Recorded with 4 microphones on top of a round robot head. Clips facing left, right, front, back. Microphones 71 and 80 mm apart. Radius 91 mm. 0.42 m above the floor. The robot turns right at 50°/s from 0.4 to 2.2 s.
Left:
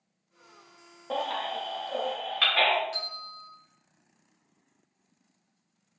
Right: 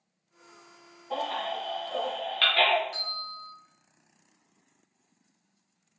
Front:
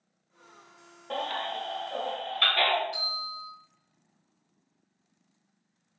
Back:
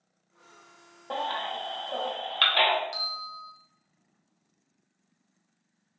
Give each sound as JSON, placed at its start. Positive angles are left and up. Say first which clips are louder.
{"t": 1.1, "sound": "a baby crying", "louder": "even, back 1 dB", "azimuth_deg": 110, "distance_m": 0.8}
{"t": 2.9, "sound": "a bell", "louder": "right 1 dB, even", "azimuth_deg": 180, "distance_m": 1.0}